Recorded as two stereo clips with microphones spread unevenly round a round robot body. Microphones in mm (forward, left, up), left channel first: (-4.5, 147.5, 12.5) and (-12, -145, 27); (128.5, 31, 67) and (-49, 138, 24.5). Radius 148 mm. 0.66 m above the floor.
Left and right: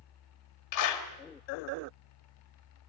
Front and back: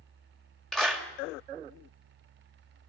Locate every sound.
0.7 s a clap: 60° left, 2.5 m